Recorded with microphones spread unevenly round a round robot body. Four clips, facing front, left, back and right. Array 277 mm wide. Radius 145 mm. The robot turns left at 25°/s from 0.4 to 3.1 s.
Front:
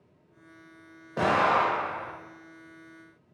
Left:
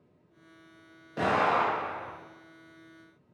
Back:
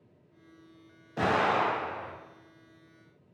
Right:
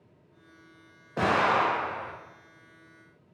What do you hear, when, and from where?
1.2 s an explosion: 40° right, 1.6 m; by 2.1 s 65° right, 1.6 m